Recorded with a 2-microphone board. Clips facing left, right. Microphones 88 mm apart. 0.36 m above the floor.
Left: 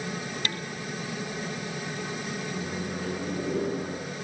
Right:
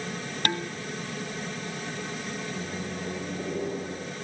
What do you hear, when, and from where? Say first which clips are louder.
0.5 s dishes clattering: right 5 dB; 50° right (ahead or behind), 1.7 m
2.5 s a microwave: left 2 dB; 65° left (ahead or behind), 4.5 m